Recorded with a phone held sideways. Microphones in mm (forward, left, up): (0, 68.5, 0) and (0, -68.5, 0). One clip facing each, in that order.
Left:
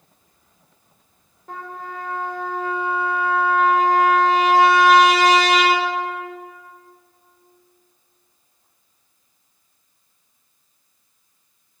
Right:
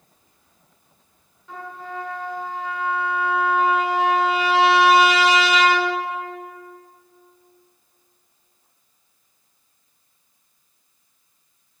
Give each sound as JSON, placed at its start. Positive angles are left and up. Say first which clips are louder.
{"t": 1.5, "sound": "a trumpet", "louder": "left 1 dB", "side_deg": 45, "distance_m": 2.0}